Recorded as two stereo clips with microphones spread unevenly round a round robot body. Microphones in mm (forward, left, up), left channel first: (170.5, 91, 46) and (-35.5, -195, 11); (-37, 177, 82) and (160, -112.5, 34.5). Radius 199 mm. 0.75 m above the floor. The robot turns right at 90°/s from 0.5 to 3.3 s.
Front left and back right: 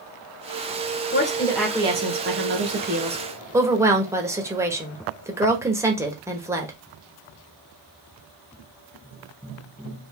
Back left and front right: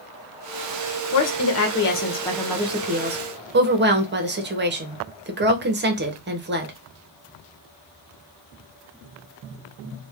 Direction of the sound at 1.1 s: 110° left.